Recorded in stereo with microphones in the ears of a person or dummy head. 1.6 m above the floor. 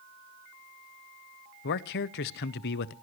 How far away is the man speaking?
About 0.7 m.